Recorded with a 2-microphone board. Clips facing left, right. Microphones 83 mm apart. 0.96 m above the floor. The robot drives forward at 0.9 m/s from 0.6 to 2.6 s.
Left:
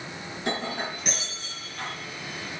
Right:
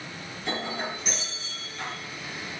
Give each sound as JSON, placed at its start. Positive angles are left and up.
{"t": 0.4, "sound": "breaking glass", "side_deg": 60, "distance_m": 3.5}